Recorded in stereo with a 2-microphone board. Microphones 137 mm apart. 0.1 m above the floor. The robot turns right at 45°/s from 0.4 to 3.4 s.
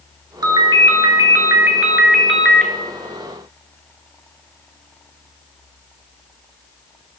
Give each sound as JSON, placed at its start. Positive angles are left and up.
{"t": 0.4, "sound": "a ringtone", "azimuth_deg": -85, "distance_m": 0.6}